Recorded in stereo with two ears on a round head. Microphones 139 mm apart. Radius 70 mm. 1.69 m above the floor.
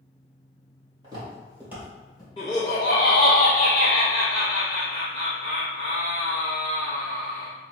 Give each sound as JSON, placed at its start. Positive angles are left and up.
{"t": 1.0, "sound": "footsteps", "side_deg": -25, "distance_m": 2.0}
{"t": 2.4, "sound": "laughter", "side_deg": 25, "distance_m": 0.9}